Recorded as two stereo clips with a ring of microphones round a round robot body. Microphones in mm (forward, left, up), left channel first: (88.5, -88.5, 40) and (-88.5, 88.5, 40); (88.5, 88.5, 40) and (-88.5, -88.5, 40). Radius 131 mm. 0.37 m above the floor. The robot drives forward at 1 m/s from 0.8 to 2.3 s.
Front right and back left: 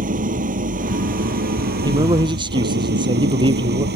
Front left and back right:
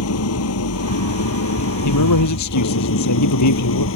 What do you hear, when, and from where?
0.0 s an engine running: 75° left; by 4.0 s 85° left
1.8 s a man speaking: 60° left; by 3.9 s 65° left